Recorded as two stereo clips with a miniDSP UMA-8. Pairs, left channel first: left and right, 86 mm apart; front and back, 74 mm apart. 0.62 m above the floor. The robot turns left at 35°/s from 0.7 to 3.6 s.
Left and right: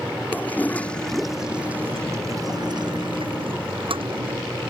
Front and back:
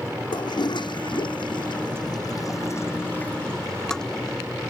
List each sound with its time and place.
0.3 s a toilet flushing: 20° left; by 4.4 s 80° right